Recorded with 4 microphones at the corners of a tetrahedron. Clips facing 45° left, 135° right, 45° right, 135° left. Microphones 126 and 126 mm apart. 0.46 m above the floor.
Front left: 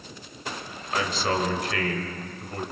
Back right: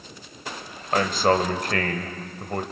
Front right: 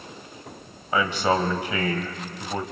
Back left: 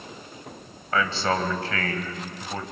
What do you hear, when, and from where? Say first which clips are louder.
0.9 s a man speaking: back right 6 dB, front right 2 dB; 115° right, 2.5 m